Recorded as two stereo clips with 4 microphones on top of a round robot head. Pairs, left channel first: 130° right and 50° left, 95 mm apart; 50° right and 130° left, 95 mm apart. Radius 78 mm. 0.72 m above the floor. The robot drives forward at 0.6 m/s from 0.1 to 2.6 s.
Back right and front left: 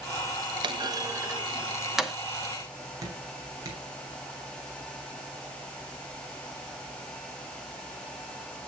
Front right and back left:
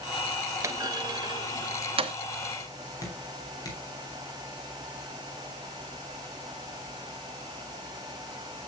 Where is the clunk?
75° left, 0.8 m; by 2.1 s 140° left, 1.0 m.